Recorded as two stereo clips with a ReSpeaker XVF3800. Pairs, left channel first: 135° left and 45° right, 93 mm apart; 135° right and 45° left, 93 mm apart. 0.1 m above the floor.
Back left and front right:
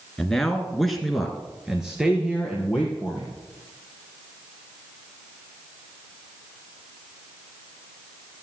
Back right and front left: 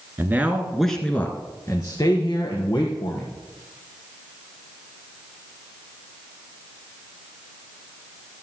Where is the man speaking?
55° left, 1.4 m; by 3.3 s 125° right, 2.5 m.